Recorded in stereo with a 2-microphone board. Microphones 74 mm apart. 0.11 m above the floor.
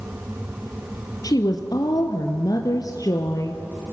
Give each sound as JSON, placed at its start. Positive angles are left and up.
{"t": 1.2, "sound": "a woman speaking", "side_deg": 55, "distance_m": 2.0}